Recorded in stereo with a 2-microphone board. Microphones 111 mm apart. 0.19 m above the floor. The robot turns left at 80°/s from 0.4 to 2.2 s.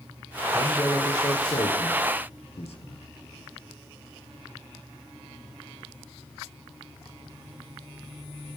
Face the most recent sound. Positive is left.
turn(degrees=65)  # may be behind; listen again after turning